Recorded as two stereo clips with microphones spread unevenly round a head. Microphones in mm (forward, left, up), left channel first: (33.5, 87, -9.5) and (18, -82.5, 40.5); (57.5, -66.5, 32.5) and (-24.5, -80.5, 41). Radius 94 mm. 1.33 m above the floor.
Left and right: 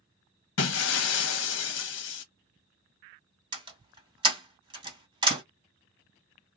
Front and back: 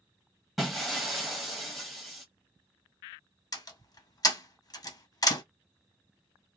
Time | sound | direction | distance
0.6 | breaking glass | 105° left | 0.7 m
3.5 | a door slam | 30° right | 1.6 m